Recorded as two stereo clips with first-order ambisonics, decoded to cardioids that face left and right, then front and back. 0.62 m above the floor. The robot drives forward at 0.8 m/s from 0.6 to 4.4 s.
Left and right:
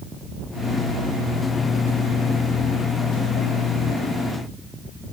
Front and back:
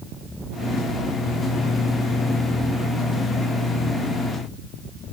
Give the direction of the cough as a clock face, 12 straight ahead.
No cough in this recording.